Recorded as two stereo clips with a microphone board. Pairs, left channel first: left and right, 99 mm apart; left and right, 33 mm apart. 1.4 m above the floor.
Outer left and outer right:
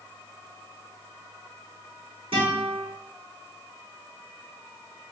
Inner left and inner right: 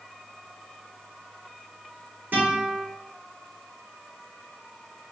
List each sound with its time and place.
2.3 s a guitar: 65° right (ahead or behind), 2.0 m